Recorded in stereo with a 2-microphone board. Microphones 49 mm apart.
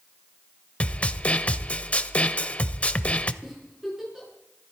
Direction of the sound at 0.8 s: 30° left (ahead or behind).